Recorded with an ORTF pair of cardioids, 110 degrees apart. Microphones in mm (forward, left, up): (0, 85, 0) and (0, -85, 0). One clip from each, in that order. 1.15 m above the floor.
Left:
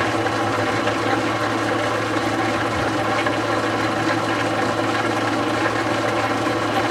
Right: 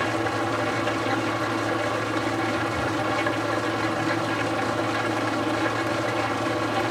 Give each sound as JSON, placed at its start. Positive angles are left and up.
{"t": 0.0, "sound": "an engine running", "azimuth_deg": 30, "distance_m": 1.8}